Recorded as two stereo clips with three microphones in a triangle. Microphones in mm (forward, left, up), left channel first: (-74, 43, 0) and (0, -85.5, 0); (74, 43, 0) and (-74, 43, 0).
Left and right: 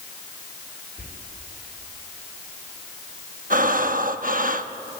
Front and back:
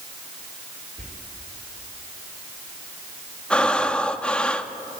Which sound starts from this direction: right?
Breathing, at 3.5 s.